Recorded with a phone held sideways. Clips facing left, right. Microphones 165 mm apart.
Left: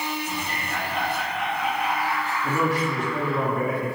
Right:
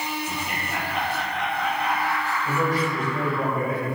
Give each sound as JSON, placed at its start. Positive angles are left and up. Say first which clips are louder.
{"t": 0.3, "sound": "laughter", "louder": "even", "side_deg": -10, "distance_m": 3.5}
{"t": 2.4, "sound": "a man speaking", "louder": "left 1 dB", "side_deg": 85, "distance_m": 3.5}